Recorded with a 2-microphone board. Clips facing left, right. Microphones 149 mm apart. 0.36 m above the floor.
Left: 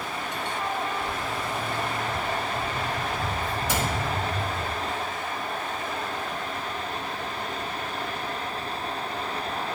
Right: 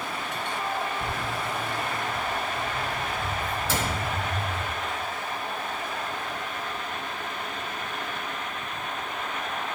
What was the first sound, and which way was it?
Footsteps, 50° right (ahead or behind).